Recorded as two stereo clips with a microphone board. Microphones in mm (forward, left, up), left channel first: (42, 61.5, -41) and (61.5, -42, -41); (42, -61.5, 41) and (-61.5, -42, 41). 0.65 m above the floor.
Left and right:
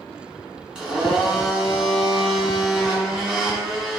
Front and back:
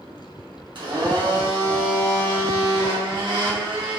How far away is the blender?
About 1.7 m.